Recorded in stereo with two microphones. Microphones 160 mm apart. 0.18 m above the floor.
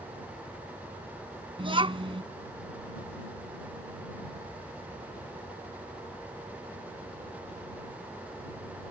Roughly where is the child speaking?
Right.